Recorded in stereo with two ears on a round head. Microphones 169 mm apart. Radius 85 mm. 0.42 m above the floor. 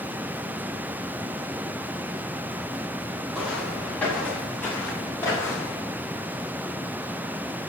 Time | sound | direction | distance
3.3 | footsteps | 5° left (ahead or behind) | 7 m